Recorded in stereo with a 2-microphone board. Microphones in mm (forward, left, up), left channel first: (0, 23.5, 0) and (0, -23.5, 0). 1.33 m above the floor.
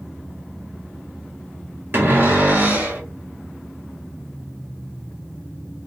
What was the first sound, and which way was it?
A cupboard door, 45° right (ahead or behind).